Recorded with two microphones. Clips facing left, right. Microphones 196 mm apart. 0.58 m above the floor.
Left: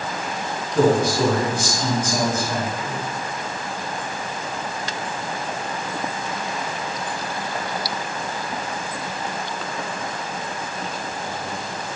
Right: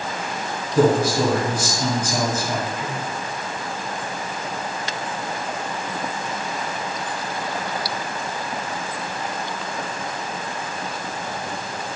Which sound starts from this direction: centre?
A man speaking, at 0.8 s.